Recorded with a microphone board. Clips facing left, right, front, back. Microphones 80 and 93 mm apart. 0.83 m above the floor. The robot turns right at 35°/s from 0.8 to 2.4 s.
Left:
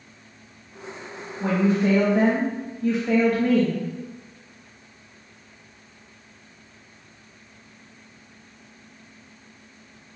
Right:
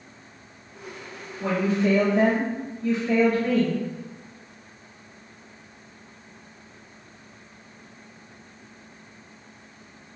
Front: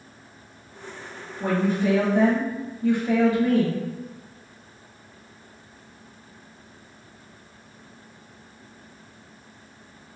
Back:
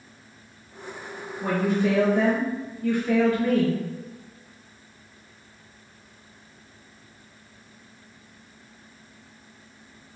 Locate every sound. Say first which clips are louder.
1.4 s a woman speaking: left 2 dB, front 1 dB; 20° left, 1.1 m; by 3.8 s 55° left, 1.1 m